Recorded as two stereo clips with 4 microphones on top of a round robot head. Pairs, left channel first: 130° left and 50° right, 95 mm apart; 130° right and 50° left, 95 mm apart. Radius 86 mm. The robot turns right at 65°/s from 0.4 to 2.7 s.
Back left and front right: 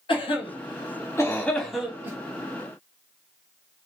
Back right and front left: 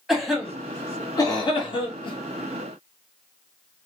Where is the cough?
135° left, 1.8 m; by 2.2 s 110° right, 1.8 m.